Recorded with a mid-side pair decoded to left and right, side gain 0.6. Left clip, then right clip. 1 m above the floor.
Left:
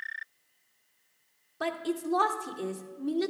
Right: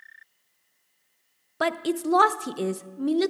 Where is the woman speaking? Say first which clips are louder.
Right 6 dB; 50° right, 0.7 m.